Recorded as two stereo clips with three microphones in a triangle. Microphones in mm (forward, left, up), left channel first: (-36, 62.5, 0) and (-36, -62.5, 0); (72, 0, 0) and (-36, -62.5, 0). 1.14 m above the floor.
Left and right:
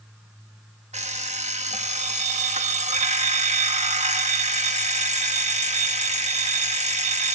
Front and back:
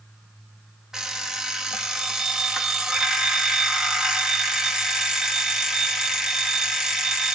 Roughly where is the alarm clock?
Ahead right.